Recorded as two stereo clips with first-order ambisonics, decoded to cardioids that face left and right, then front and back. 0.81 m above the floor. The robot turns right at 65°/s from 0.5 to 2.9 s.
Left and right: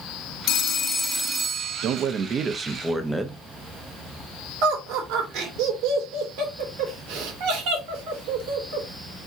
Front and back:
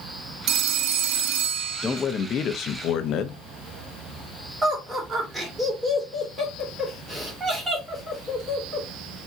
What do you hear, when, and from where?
0.5 s a phone ringing: 135° left, 0.6 m; by 2.0 s 125° right, 0.6 m
1.8 s a man speaking: 75° right, 0.5 m; by 3.4 s 5° right, 0.5 m
4.6 s laughter: 105° right, 2 m